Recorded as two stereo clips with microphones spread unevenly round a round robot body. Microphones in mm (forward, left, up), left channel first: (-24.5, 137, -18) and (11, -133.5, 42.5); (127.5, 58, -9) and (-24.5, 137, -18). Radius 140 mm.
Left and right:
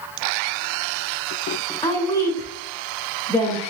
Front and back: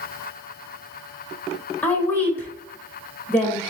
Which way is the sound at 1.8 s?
50° left.